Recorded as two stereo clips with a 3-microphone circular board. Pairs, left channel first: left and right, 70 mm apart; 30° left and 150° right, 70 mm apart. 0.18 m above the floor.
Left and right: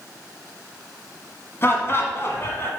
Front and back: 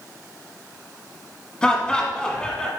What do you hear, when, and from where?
1.6 s laughter: 100° left, 1.4 m